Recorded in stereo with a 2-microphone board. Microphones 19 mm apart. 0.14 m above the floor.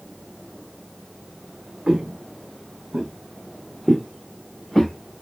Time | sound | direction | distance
1.9 | footsteps | 85° right | 0.8 m